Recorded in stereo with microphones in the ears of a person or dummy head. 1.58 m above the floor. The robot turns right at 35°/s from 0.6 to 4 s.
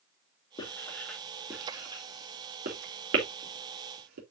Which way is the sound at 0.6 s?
20° left (ahead or behind).